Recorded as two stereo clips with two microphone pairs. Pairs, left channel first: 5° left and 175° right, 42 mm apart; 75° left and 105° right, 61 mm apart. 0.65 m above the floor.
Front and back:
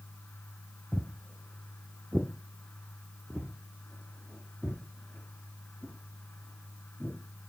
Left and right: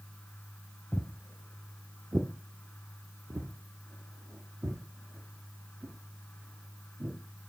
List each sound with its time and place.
0.9 s footsteps: 140° left, 0.7 m; by 7.2 s 100° right, 3.5 m